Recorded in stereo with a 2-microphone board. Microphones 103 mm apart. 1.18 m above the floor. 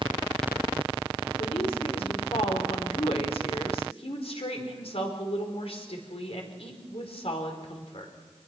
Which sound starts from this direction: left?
A woman speaking, at 1.4 s.